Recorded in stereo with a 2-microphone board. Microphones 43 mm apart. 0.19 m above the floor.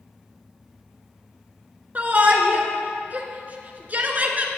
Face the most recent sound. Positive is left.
turn(degrees=-40)  # may be behind; listen again after turning